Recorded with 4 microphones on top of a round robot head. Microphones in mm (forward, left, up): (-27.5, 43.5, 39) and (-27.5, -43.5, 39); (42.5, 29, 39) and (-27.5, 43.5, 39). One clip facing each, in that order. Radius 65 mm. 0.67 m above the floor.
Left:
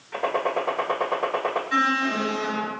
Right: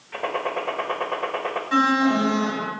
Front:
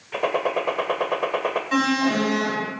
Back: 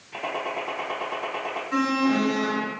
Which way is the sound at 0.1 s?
10° left.